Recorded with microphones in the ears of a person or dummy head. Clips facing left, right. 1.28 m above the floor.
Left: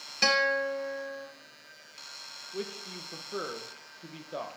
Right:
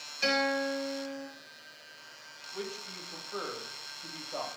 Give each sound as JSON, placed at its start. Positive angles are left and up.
{"t": 0.2, "sound": "a guitar", "side_deg": 75, "distance_m": 1.3}
{"t": 2.5, "sound": "a man speaking", "side_deg": 25, "distance_m": 1.3}